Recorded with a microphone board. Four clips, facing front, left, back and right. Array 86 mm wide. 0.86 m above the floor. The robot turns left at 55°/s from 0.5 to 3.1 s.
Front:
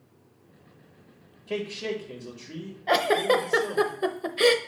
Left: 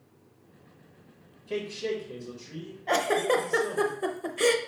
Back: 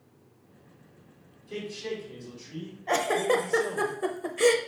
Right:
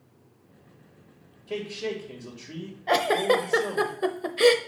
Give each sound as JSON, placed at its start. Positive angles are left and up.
{"t": 1.5, "sound": "a man speaking", "azimuth_deg": -10, "distance_m": 1.9}
{"t": 2.9, "sound": "a giggle", "azimuth_deg": -30, "distance_m": 0.6}